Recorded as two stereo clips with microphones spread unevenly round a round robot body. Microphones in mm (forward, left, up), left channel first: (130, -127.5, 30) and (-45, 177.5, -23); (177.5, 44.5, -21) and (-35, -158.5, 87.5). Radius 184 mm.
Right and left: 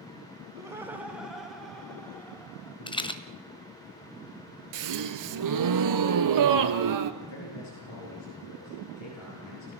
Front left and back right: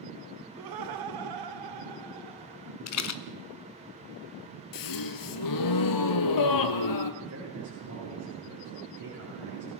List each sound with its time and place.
0.6 s laughter: 165° right, 1.5 m; by 2.8 s 145° right, 2.5 m
2.9 s a rattle: 20° left, 1.3 m
4.7 s a gasp: 80° left, 1.4 m
7.2 s a man speaking: 110° right, 10 m